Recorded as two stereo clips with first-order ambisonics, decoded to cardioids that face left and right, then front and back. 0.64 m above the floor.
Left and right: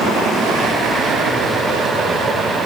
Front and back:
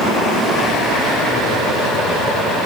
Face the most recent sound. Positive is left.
No sound to turn to.